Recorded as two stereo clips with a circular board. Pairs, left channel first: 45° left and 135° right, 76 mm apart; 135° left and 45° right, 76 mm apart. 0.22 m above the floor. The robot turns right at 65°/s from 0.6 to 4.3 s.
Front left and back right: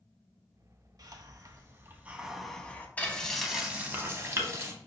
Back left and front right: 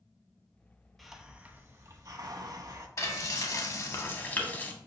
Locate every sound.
1.0 s a hiss: 135° right, 0.5 m; by 2.9 s 15° right, 0.5 m
3.0 s frying: 105° left, 0.6 m; by 4.7 s 170° right, 0.6 m